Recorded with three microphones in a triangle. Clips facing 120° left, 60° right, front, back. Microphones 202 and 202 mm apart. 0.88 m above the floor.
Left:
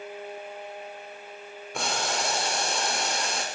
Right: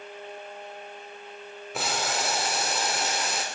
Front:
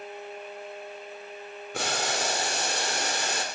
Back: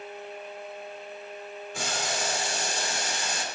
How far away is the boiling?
About 2.5 m.